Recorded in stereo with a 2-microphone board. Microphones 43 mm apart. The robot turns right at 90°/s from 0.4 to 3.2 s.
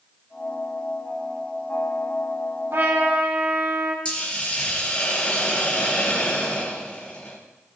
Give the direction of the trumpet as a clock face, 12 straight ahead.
3 o'clock.